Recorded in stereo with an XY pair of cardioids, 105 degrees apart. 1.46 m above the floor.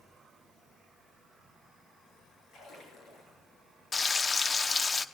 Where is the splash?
70° left, 8.5 m.